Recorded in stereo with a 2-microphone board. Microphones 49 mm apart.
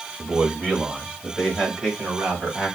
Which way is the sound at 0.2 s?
Centre (ahead or behind).